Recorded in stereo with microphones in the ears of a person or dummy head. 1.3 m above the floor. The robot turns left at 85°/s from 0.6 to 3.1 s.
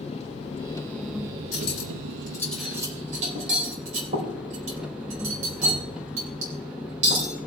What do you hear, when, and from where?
0.0 s an engine running: 35° left, 1.0 m; by 7.5 s 175° right, 1.0 m
1.5 s cutlery clinking: 85° left, 4 m; by 7.3 s 45° right (ahead or behind), 4 m